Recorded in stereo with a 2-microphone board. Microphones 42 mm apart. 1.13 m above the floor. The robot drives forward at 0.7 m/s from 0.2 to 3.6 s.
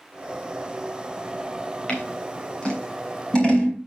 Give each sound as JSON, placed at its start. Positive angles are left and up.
{"t": 1.9, "sound": "scissors", "side_deg": 25, "distance_m": 3.5}